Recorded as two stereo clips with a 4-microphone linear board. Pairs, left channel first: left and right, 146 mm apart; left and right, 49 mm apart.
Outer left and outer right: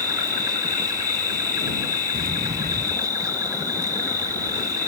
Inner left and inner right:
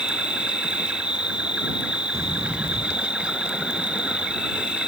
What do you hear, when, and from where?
0.0 s an insect: 25° right (ahead or behind)
2.1 s a sliding door: 80° right